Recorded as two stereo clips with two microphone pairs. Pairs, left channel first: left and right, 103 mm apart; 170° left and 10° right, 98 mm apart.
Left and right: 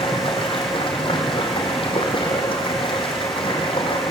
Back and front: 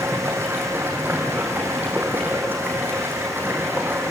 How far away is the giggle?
I don't hear a giggle.